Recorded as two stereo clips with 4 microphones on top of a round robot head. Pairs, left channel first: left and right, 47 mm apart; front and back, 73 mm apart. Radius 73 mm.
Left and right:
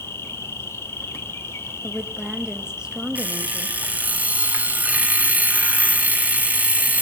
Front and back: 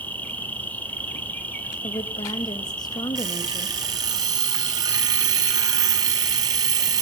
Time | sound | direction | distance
0.0 | an insect | 65° left | 1.1 m
1.8 | a woman speaking | 15° right | 1.2 m
3.1 | an alarm clock | 145° right | 1.1 m